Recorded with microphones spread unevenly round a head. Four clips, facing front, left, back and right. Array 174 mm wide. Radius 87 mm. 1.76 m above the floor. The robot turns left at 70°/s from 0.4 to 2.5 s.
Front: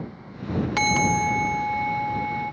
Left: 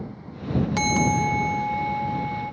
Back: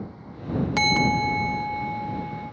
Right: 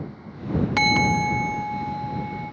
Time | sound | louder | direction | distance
0.8 | a bell | right 1 dB, front 1 dB | 175° right | ?